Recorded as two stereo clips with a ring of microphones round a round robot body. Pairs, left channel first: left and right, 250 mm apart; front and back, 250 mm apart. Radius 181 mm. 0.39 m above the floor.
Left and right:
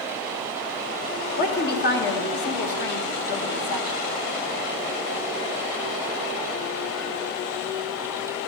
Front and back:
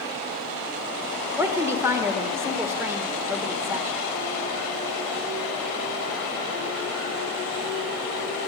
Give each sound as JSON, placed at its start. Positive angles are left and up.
{"t": 1.4, "sound": "a woman speaking", "azimuth_deg": 105, "distance_m": 1.1}